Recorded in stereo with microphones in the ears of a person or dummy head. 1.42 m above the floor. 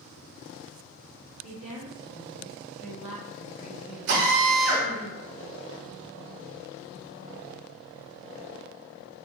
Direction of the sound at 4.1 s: 60° right (ahead or behind).